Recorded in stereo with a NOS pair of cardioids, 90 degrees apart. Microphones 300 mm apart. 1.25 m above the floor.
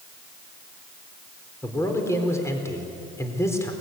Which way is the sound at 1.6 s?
10° left.